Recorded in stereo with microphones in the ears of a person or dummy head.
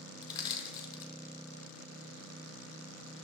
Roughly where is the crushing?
Left.